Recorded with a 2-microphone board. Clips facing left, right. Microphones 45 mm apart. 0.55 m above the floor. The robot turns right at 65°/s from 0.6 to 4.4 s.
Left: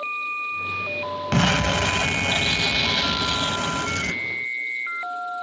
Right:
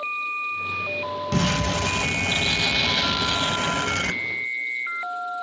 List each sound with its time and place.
1.3 s an explosion: 75° left, 0.5 m; by 4.2 s 100° right, 0.5 m